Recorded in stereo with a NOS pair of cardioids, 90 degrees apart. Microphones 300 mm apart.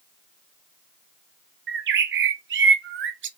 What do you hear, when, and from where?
1.7 s a bird: 40° right, 0.5 m